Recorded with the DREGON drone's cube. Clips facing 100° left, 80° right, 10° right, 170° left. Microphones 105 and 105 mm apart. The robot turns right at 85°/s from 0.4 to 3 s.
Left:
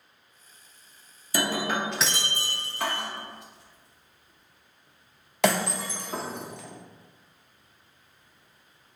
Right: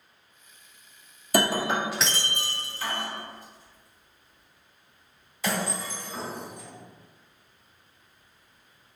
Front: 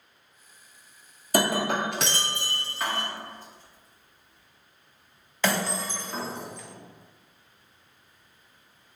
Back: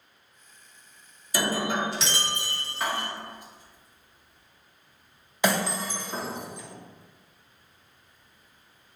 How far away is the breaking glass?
About 0.6 m.